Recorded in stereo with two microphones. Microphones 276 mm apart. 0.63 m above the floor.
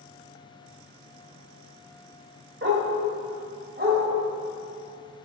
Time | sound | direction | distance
2.6 | a dog barking | 40° right (ahead or behind) | 1.2 m